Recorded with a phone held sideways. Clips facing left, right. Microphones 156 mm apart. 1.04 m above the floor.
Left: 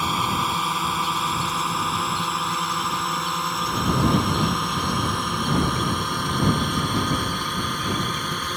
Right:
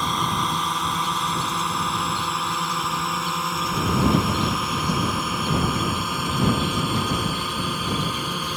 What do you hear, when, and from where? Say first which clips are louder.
0.0 s a drone: even; 5° left (ahead or behind); by 8.6 s 10° right (ahead or behind)